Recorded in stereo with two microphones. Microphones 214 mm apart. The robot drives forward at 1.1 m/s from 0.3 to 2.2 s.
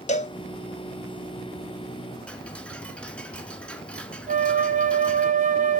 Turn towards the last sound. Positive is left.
turn(degrees=-40)  # may be behind; listen again after turning